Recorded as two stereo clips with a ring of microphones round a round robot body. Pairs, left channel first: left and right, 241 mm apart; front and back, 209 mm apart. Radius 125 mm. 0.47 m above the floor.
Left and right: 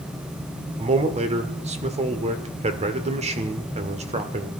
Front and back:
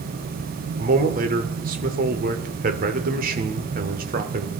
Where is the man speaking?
145° right, 1.3 m.